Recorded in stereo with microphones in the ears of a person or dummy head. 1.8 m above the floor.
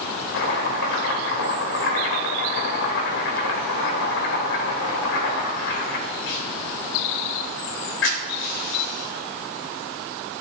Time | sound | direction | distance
0.3 | chopping | 75° left (ahead or behind) | 3 m